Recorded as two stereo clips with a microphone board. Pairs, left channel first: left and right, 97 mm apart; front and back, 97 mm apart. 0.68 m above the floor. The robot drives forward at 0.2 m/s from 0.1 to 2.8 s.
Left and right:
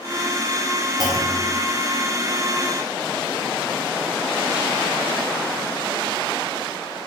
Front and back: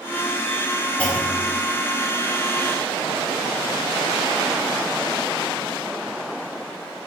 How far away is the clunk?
About 0.6 m.